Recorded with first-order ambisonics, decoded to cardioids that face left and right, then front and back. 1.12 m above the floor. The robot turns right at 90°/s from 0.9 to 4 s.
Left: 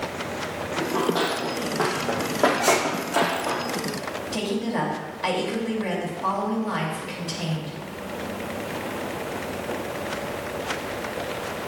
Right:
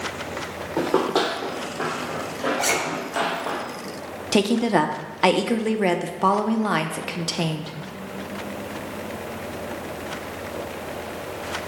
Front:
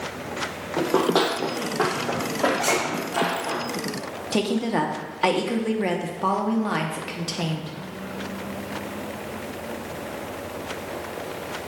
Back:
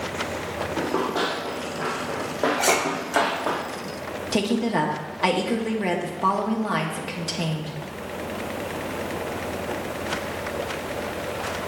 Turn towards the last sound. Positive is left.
turn(degrees=-85)